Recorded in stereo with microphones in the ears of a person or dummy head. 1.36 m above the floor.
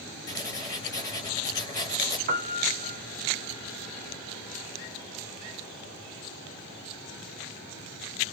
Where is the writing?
20° left (ahead or behind), 3 m.